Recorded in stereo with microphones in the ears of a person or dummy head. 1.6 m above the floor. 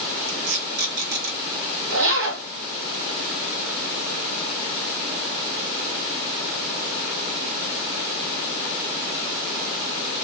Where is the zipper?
45° right (ahead or behind), 0.7 m.